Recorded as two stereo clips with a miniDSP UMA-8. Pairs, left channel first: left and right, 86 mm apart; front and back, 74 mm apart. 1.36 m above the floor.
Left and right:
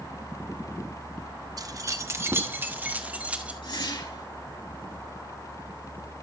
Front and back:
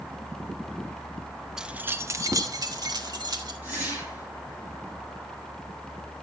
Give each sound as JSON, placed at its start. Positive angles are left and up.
{"t": 1.6, "sound": "keys jangling", "azimuth_deg": -100, "distance_m": 0.7}
{"t": 3.6, "sound": "a whoosh", "azimuth_deg": 110, "distance_m": 8.0}